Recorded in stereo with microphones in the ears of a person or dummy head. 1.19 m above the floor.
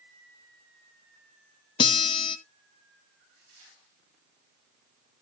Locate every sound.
1.8 s a guitar: 30° left (ahead or behind), 1.9 m